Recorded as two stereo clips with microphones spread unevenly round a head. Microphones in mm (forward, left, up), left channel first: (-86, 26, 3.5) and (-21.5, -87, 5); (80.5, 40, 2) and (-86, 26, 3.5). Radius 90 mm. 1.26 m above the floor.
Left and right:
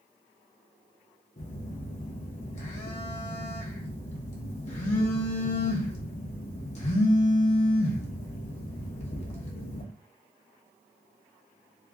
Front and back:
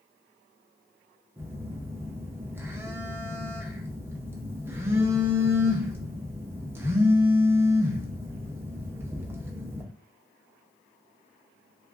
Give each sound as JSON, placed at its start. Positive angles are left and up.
{"t": 1.4, "sound": "a phone buzzing", "azimuth_deg": 110, "distance_m": 0.6}